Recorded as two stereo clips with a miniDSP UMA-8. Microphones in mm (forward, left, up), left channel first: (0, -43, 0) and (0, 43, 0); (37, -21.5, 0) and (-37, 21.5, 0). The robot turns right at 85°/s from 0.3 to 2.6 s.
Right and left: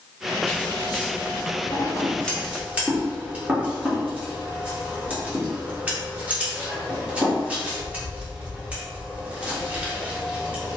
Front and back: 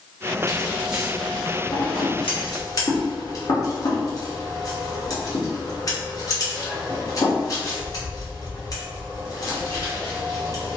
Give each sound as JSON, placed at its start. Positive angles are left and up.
{"t": 0.5, "sound": "scissors", "azimuth_deg": -165, "distance_m": 0.9}